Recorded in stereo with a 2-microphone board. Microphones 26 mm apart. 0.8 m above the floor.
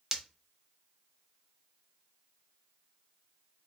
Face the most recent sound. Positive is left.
turn(degrees=-15)  # may be behind; listen again after turning